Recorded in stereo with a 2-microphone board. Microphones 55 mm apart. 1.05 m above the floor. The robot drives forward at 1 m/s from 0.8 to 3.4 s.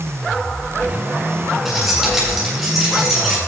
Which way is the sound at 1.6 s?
5° right (ahead or behind).